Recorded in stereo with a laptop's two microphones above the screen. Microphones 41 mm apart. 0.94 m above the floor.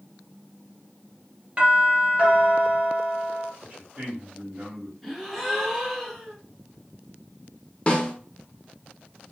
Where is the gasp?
5° right (ahead or behind), 1.2 m.